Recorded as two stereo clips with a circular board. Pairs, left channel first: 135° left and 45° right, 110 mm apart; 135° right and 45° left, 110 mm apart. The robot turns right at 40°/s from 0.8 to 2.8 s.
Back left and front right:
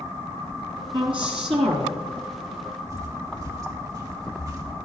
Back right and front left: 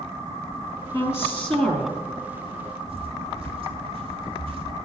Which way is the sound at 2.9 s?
15° left.